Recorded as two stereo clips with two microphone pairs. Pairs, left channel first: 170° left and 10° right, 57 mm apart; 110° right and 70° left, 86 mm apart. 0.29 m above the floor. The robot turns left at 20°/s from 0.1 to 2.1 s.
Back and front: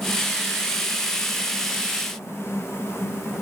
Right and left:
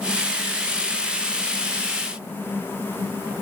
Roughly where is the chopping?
I don't hear chopping.